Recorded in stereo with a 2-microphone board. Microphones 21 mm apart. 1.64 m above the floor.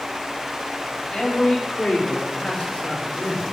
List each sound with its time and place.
1.1 s a man speaking: 50° left (ahead or behind), 4 m; by 3.4 s 80° left, 5.5 m